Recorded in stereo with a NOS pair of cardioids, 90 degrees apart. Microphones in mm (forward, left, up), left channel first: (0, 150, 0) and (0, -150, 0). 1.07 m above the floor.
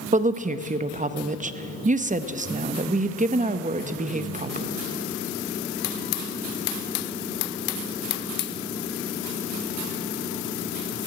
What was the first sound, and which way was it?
A woman speaking, 25° right.